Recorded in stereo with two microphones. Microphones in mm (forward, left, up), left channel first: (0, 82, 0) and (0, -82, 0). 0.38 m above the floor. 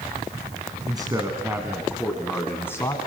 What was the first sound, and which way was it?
A man speaking, 25° right (ahead or behind).